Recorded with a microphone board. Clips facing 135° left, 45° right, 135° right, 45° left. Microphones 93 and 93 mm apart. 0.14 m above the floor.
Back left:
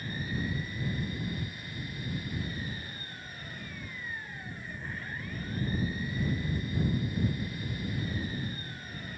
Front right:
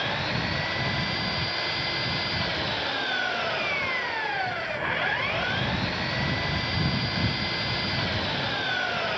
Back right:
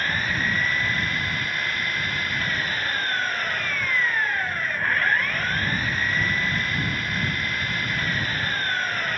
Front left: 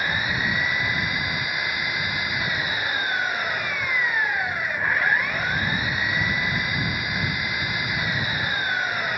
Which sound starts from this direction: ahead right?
An engine running, at 0.0 s.